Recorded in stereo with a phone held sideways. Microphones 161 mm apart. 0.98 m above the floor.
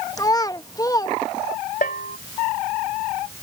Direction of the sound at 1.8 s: 65° left (ahead or behind).